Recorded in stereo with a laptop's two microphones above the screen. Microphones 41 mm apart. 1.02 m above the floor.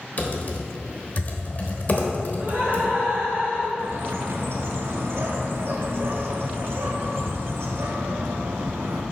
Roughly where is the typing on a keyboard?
Left.